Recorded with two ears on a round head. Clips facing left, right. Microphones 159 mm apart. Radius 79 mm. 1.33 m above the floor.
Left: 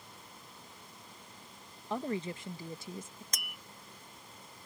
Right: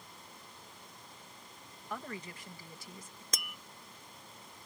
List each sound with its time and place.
1.9 s a woman speaking: 25° left (ahead or behind)
3.3 s tapping: 65° right (ahead or behind)